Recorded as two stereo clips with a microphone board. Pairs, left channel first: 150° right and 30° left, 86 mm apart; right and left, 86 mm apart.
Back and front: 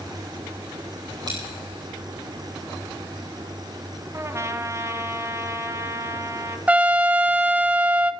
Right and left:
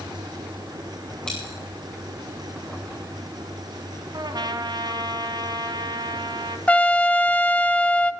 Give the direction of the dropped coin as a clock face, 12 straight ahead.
12 o'clock.